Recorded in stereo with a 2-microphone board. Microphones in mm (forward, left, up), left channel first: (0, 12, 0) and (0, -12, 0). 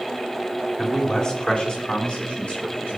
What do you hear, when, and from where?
0.8 s a man speaking: 20° left (ahead or behind), 3 m; by 3.0 s 70° left (ahead or behind), 4.5 m